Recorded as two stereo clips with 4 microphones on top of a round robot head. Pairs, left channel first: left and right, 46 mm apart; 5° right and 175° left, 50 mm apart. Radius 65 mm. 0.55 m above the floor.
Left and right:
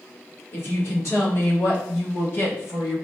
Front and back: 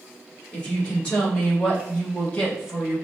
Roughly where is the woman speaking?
Ahead left.